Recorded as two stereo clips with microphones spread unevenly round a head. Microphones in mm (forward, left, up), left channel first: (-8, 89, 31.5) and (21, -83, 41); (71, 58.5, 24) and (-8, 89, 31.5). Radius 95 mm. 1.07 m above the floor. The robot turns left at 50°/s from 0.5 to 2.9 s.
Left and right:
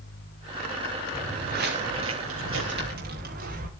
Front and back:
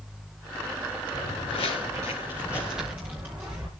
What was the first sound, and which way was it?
Footsteps, 15° right.